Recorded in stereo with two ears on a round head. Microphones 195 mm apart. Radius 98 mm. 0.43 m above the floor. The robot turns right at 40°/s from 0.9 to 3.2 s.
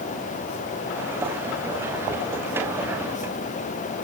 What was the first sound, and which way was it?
Only background noise.